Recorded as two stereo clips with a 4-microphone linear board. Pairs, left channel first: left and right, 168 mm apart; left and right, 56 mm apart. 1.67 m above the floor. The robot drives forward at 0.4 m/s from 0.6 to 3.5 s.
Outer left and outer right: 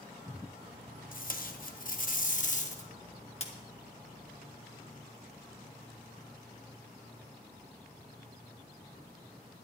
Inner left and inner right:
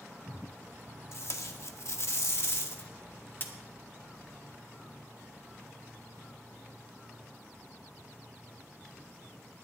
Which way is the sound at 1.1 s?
55° left (ahead or behind).